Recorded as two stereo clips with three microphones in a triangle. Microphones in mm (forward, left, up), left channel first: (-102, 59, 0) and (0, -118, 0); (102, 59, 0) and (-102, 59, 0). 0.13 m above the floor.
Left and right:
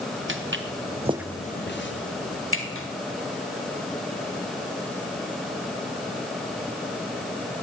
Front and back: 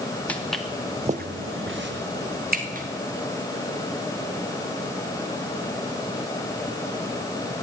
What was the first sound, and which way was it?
Footsteps, 85° right.